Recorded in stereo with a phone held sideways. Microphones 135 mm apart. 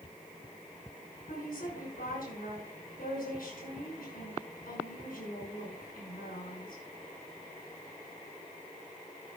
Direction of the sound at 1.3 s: 85° left.